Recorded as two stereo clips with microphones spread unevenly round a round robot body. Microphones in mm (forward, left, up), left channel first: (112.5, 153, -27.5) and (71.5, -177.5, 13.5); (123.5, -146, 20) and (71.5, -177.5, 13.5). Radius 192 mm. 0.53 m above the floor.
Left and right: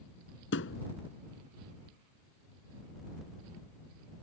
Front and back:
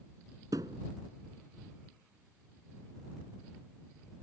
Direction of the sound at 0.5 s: 145° left.